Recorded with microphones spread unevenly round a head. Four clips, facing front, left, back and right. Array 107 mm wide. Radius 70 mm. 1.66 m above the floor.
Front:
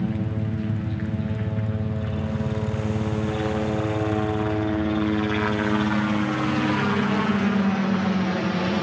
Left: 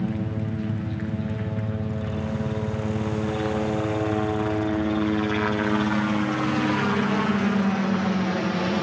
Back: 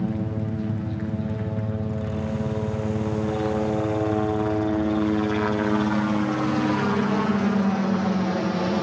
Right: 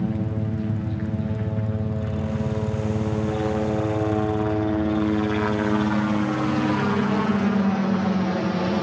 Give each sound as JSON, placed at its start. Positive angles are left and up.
{"t": 0.0, "sound": "a helicopter", "azimuth_deg": -145}